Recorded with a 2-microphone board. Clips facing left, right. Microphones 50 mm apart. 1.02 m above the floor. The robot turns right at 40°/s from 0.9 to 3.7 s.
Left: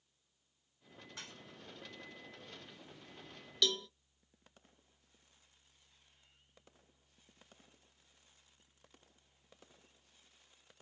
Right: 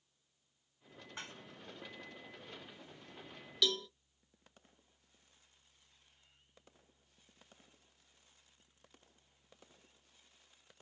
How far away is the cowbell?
About 0.6 m.